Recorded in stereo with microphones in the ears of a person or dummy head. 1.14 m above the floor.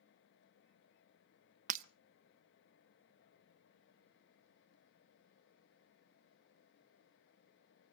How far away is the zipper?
No zipper in this recording.